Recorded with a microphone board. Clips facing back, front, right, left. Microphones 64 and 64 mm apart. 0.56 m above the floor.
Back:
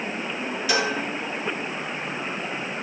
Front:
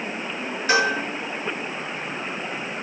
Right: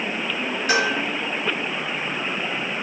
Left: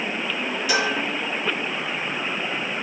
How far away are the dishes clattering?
About 5.5 m.